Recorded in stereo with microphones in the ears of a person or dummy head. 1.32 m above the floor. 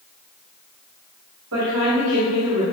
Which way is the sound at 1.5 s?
80° right.